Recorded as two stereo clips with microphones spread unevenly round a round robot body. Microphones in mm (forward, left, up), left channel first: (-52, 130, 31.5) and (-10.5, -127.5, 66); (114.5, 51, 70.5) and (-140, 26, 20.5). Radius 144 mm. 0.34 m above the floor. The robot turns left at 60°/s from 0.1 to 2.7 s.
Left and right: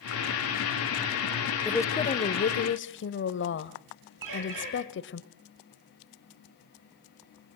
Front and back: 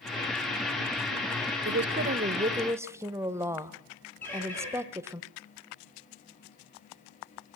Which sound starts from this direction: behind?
A woman speaking, at 1.6 s.